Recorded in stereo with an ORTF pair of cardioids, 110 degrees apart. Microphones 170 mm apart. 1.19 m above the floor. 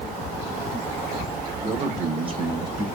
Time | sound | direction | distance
1.6 | a man speaking | 45° right | 1.5 m